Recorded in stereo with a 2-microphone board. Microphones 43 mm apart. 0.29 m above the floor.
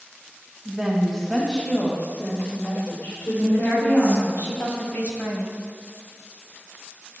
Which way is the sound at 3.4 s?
55° left (ahead or behind).